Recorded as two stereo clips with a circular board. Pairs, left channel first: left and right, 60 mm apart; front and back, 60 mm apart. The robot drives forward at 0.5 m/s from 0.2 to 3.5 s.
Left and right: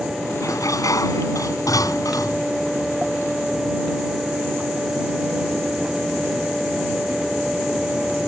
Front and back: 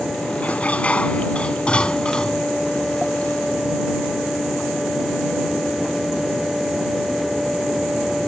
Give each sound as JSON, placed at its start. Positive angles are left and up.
{"t": 0.4, "sound": "dishes clattering", "azimuth_deg": 70}